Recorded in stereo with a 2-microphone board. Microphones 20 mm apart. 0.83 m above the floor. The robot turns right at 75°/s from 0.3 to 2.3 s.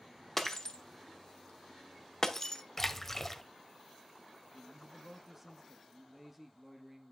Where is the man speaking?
10° right (ahead or behind), 0.9 m.